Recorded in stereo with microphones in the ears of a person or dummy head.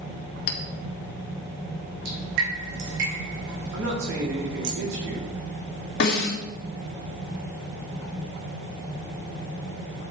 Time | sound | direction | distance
0.5 | a clink | 55° left (ahead or behind) | 1.5 m
2.0 | dripping | 70° right (ahead or behind) | 3.5 m
3.7 | a man speaking | 85° right | 4 m
6.0 | a snare drum | 55° left (ahead or behind) | 2.5 m